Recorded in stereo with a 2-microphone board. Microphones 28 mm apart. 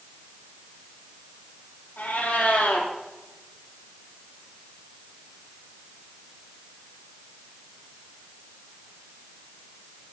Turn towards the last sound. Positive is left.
turn(degrees=70)  # may be behind; listen again after turning